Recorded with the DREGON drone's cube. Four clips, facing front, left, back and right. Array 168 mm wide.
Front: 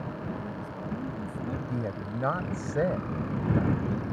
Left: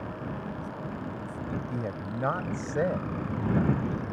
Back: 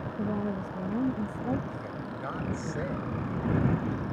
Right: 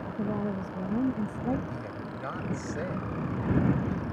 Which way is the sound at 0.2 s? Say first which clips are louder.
Right 5 dB, back 5 dB; 130° right.